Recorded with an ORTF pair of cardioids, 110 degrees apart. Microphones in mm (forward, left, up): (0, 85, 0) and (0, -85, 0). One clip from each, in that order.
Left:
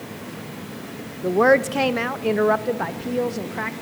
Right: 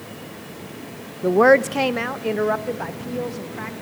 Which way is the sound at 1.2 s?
20° right.